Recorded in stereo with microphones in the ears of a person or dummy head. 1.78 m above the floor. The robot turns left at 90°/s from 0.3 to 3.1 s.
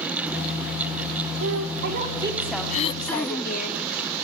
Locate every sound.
1.4 s a woman speaking: 85° right, 3.5 m; by 3.7 s 120° left, 3.5 m
2.7 s throat clearing: 35° left, 0.6 m; by 3.7 s straight ahead, 0.6 m